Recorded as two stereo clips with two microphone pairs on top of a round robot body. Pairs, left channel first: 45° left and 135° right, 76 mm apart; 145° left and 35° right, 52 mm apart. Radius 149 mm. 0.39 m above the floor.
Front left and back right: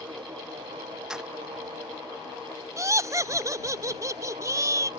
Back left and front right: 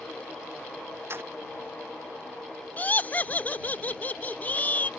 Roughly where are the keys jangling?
Ahead right.